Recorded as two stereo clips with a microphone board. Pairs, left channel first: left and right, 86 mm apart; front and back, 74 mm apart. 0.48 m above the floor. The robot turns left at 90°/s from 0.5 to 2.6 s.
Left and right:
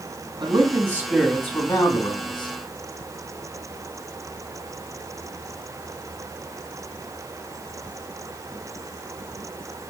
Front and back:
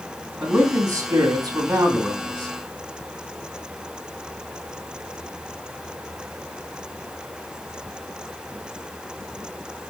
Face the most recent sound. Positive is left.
turn(degrees=50)